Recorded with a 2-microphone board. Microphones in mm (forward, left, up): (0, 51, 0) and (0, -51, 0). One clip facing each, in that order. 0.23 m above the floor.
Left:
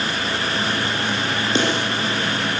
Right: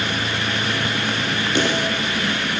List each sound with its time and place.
1.6 s a snare drum: 25° left (ahead or behind), 8.5 m